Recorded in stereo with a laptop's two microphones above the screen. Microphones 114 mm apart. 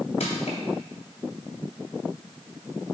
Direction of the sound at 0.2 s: 80° left.